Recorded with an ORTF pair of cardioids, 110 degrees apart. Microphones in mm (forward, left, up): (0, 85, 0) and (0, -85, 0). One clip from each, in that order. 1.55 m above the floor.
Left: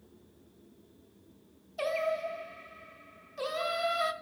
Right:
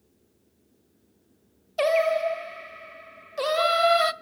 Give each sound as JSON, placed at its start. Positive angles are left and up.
{"t": 1.8, "sound": "singing", "azimuth_deg": -45, "distance_m": 0.5}